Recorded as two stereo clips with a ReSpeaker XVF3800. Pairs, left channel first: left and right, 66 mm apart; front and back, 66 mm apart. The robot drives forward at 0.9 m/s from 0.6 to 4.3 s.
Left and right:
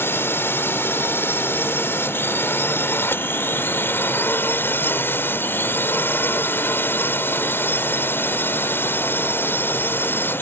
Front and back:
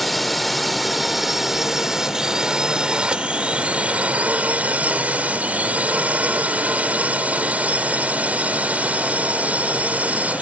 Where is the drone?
90° left; by 10.4 s 125° left.